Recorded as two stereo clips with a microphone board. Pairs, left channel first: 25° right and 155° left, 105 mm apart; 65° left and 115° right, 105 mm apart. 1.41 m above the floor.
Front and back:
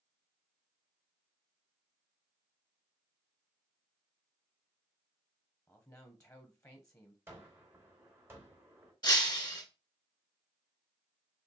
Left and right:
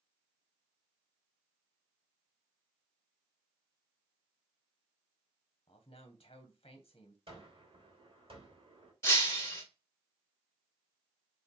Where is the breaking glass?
15° left, 1.5 m.